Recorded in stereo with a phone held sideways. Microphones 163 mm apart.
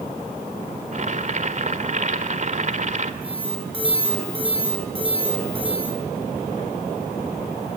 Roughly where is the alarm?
Right.